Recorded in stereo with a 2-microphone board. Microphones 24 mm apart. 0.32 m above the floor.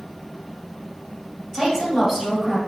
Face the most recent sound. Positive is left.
turn(degrees=-15)  # may be behind; listen again after turning